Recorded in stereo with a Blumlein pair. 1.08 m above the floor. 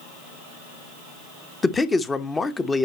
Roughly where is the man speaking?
Ahead.